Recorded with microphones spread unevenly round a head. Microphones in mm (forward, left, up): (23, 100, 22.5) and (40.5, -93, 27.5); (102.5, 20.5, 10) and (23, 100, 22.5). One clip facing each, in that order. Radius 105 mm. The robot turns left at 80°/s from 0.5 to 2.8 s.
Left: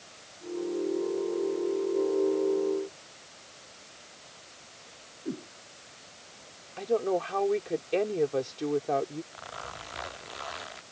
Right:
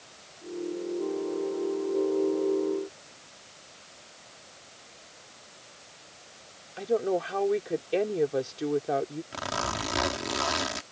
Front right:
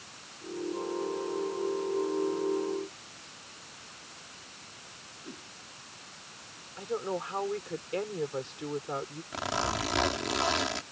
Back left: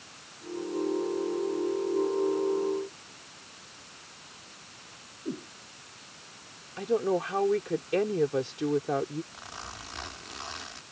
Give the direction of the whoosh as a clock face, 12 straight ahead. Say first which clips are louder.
Left 21 dB, back left 11 dB; 9 o'clock.